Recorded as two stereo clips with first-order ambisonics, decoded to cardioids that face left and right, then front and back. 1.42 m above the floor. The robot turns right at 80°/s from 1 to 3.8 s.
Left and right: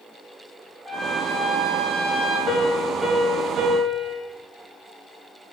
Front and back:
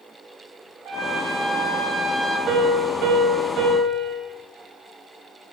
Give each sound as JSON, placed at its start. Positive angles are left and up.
{"t": 0.8, "sound": "a trumpet", "azimuth_deg": 180, "distance_m": 3.0}
{"t": 2.5, "sound": "a piano", "azimuth_deg": 140, "distance_m": 2.5}